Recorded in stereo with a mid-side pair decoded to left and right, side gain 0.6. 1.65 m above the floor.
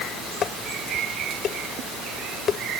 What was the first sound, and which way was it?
Dishes clattering, 45° left.